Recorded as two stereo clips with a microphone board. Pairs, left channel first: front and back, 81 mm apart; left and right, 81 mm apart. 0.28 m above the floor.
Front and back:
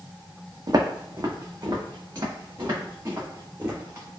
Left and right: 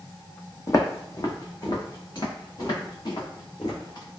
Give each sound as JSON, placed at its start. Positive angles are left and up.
{"t": 0.7, "sound": "footsteps", "azimuth_deg": 140, "distance_m": 0.6}